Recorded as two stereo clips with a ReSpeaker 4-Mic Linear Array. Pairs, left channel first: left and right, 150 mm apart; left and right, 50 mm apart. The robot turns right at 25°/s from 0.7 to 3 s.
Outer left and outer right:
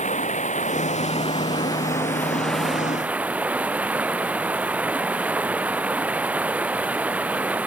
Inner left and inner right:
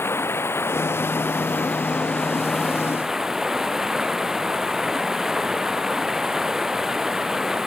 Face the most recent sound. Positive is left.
turn(degrees=-170)